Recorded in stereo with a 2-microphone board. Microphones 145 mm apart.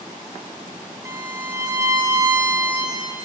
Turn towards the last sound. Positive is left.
turn(degrees=-20)  # may be behind; listen again after turning